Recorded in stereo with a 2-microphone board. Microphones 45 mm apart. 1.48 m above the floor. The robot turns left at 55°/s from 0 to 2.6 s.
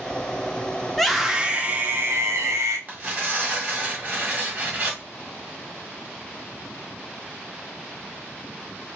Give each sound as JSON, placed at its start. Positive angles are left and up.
{"t": 0.9, "sound": "a scream", "azimuth_deg": 10, "distance_m": 0.8}
{"t": 2.9, "sound": "tearing paper", "side_deg": -30, "distance_m": 1.4}